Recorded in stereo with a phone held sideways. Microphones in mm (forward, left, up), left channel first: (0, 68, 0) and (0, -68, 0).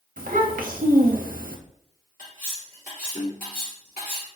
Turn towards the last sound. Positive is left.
turn(degrees=90)